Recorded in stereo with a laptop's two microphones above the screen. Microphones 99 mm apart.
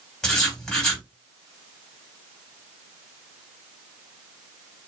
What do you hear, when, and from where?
0.2 s writing: 10° left (ahead or behind), 1.7 m